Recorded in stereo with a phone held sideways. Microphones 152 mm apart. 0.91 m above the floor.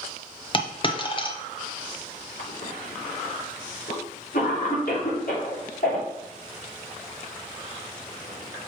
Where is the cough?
65° left (ahead or behind), 3 m.